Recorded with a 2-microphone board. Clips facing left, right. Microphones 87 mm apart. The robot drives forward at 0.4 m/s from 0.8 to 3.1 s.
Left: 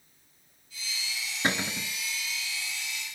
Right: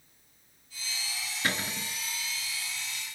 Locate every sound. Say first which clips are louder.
1.4 s a cupboard door: left 3 dB; 25° left (ahead or behind), 0.5 m; by 1.9 s 20° left (ahead or behind), 0.6 m